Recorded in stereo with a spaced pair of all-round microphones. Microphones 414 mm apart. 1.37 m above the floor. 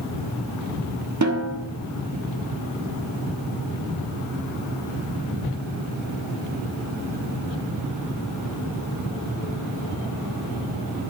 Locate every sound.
1.2 s a snare drum: 40° right (ahead or behind), 1.4 m